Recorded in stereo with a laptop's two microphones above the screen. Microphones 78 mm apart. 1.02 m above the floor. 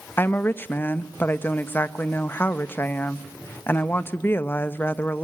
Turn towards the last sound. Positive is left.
turn(degrees=25)  # may be behind; listen again after turning